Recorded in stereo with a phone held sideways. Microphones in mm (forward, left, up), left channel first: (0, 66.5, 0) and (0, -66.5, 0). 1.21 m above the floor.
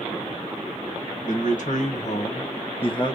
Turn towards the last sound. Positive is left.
turn(degrees=35)  # may be behind; listen again after turning